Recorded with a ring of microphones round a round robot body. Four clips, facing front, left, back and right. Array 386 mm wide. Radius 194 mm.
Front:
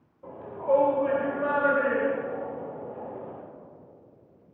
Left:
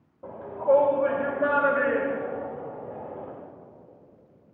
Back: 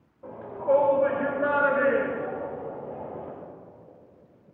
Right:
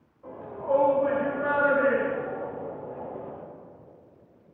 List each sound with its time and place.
0.2 s a shout: 95° left, 2.5 m; by 3.3 s 130° left, 3.5 m